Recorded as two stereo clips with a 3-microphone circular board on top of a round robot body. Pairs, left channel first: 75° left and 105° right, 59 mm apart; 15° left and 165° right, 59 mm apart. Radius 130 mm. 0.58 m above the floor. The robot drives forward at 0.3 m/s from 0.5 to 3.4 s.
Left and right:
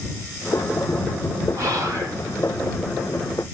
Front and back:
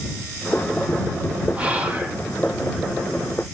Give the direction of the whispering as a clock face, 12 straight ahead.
3 o'clock.